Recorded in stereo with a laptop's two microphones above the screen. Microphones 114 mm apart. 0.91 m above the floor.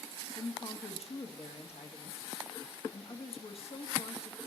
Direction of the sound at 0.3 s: 65° left (ahead or behind).